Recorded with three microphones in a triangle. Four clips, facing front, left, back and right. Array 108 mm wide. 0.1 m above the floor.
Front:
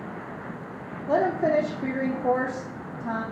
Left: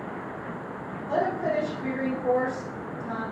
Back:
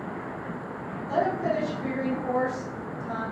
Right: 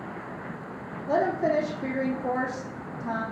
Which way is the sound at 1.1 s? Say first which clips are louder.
Right 2 dB, front 3 dB; 20° right.